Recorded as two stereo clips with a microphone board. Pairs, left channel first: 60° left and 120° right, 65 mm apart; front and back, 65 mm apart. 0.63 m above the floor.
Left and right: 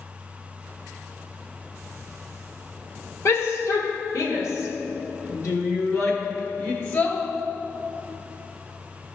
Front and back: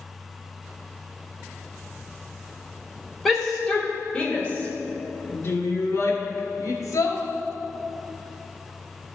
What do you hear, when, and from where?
3.2 s a shout: 90° left, 1.9 m; by 7.2 s 15° left, 2 m